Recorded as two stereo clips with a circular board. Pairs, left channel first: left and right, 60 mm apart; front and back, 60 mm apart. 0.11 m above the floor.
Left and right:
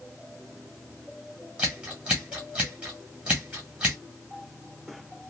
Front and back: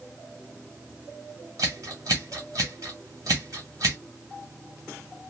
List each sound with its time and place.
1.6 s scissors: 165° right, 1.8 m